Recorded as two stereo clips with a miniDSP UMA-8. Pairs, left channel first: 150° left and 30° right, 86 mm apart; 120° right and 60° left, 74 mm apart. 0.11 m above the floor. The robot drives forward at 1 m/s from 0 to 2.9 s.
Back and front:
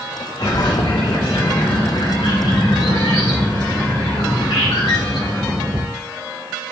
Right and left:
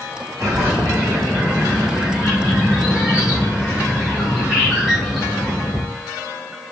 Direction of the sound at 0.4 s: 110° left.